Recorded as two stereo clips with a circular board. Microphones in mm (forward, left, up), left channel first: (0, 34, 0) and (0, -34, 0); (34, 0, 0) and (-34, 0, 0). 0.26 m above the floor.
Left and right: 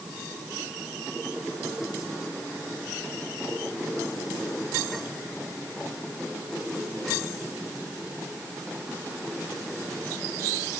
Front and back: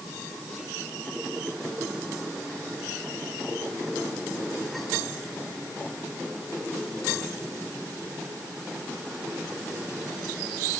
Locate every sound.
Only background noise.